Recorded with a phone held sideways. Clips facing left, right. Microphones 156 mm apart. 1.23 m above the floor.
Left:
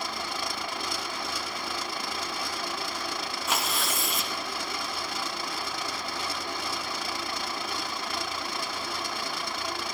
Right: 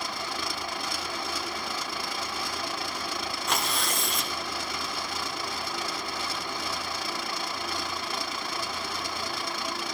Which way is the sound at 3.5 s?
Centre (ahead or behind).